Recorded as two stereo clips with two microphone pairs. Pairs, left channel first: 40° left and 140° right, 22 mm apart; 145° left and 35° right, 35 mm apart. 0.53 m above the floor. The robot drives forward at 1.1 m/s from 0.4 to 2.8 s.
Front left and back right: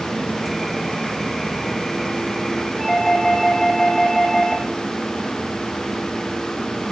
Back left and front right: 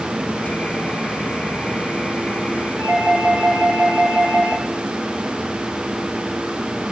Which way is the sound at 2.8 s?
95° left.